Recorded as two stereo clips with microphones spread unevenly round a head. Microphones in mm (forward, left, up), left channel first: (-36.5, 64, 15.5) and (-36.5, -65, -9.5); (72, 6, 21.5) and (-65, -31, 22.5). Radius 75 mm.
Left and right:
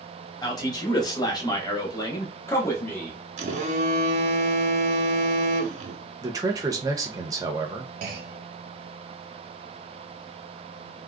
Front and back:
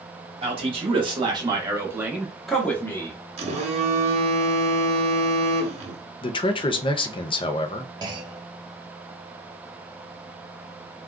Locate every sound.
0.4 s a man speaking: 155° left, 1.3 m; by 3.2 s straight ahead, 0.8 m
3.4 s a phone buzzing: 125° right, 0.6 m
6.2 s a man speaking: 35° right, 0.5 m
8.0 s a clunk: 100° right, 0.6 m